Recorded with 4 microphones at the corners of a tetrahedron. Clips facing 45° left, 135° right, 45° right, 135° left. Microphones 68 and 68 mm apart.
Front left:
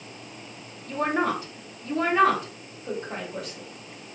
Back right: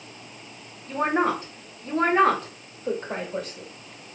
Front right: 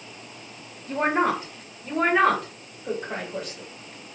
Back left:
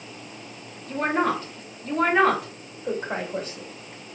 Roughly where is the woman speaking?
Right.